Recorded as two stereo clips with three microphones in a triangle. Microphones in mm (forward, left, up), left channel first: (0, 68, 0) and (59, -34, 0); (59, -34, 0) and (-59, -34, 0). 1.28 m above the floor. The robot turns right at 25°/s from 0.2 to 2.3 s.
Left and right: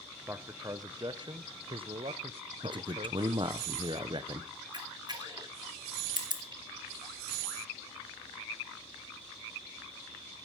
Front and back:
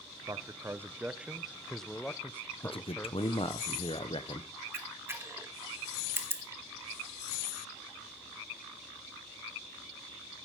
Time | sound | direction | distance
0.3 | a man speaking | 125° right | 0.7 m
2.6 | a man speaking | 25° right | 0.9 m
4.7 | a camera shutter | 110° right | 1.1 m